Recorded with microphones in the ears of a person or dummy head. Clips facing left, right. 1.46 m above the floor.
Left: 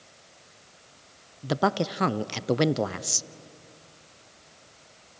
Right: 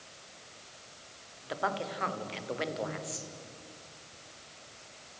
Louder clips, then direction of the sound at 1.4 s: Left 9 dB; 55° left (ahead or behind).